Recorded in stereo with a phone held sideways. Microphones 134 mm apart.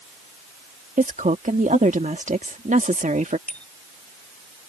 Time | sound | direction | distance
1.0 | a woman speaking | 65° right (ahead or behind) | ?
3.5 | a bicycle bell | 10° left (ahead or behind) | ?